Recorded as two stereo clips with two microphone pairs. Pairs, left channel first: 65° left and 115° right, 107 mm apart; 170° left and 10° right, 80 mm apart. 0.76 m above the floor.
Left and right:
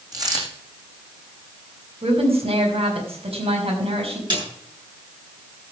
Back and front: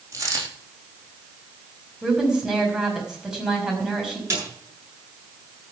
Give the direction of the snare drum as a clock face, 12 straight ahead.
2 o'clock.